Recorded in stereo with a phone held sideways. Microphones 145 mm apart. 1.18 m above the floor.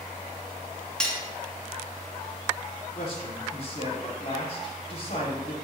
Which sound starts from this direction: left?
A man speaking, at 3.0 s.